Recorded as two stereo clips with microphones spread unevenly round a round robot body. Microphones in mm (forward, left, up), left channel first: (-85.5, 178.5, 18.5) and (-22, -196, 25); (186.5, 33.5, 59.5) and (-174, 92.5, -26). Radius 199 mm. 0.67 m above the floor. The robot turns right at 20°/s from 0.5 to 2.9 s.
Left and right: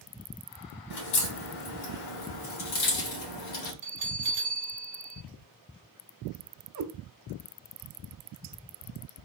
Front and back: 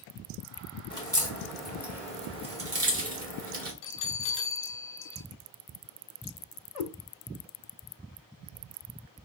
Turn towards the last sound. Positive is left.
turn(degrees=-30)